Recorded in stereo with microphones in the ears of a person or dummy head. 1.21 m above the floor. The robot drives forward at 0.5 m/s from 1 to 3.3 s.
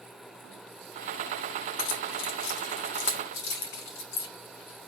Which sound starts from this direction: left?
Keys jangling, at 1.8 s.